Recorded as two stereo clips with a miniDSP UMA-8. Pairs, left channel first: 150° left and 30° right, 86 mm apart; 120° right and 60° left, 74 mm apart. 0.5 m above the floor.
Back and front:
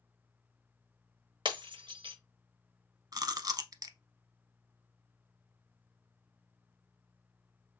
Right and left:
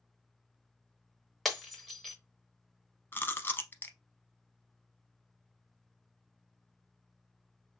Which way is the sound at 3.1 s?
65° right.